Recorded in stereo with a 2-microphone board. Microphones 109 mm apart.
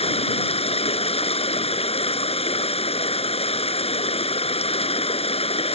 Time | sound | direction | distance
0.0 | running water | 65° left (ahead or behind) | ?